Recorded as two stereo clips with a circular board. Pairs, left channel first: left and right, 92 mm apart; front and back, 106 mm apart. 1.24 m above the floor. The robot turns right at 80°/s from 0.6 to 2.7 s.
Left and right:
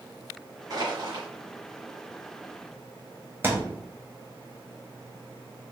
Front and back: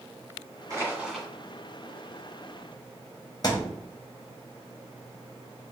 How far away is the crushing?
About 2 m.